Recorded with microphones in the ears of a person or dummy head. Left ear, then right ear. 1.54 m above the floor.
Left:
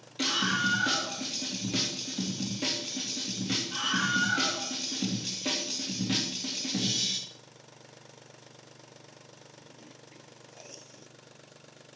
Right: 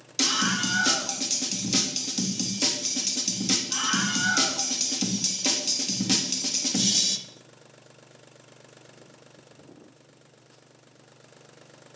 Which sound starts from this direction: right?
A scream, at 0.2 s.